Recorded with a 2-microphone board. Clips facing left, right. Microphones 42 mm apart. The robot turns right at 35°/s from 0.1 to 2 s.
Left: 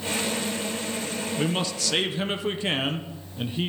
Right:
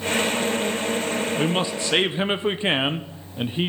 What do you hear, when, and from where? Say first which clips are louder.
1.4 s a man speaking: right 4 dB; 15° right (ahead or behind), 0.6 m; by 3.7 s 25° right (ahead or behind), 0.6 m